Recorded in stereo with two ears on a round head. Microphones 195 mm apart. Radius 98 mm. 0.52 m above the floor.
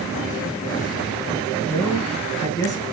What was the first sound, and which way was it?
A man speaking, 15° left (ahead or behind).